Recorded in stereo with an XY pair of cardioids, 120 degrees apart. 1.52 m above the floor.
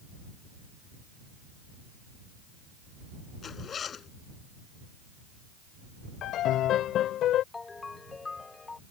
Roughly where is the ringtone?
Ahead.